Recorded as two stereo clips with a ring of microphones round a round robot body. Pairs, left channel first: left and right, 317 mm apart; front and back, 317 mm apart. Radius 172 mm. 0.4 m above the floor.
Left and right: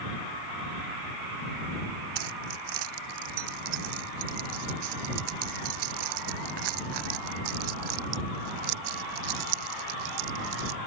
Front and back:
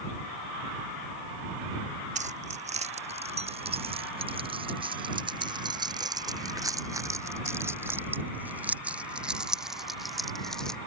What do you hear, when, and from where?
2.1 s keys jangling: 110° right; by 10.8 s 90° right